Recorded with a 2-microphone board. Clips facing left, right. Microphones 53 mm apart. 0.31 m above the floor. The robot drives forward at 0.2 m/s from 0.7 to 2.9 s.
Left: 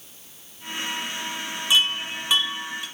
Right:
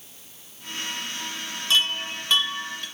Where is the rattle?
No rattle in this recording.